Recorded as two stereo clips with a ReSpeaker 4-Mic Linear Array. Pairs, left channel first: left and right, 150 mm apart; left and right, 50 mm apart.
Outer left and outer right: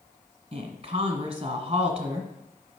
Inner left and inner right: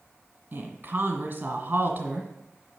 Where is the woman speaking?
40° right (ahead or behind), 1.6 m.